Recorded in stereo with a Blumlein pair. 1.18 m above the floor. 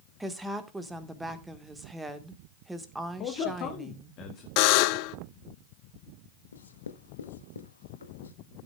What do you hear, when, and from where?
0.2 s a woman speaking: 5° right, 1.3 m
3.2 s a man speaking: 35° left, 1.3 m
4.6 s a buzzer: 45° left, 0.6 m
6.5 s writing: 70° left, 1.0 m